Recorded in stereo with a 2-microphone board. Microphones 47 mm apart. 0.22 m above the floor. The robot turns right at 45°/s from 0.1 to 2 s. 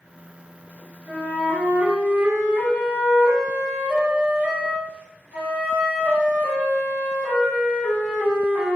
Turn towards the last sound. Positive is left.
turn(degrees=-35)